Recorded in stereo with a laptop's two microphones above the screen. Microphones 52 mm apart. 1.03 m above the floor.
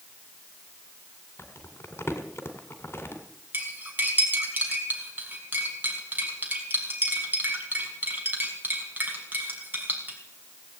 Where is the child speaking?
I don't hear a child speaking.